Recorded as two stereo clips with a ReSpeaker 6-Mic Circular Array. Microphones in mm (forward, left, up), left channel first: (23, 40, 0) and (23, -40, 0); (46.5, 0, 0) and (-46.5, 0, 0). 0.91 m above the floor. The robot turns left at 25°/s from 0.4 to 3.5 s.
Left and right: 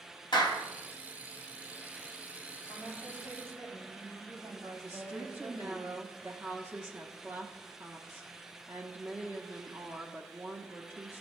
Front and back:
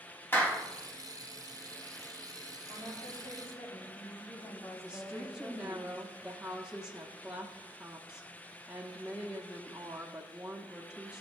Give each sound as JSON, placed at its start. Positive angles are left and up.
{"t": 0.3, "sound": "a clap", "azimuth_deg": 70, "distance_m": 1.6}
{"t": 2.7, "sound": "a woman speaking", "azimuth_deg": -20, "distance_m": 3.0}
{"t": 4.8, "sound": "a woman speaking", "azimuth_deg": -110, "distance_m": 0.9}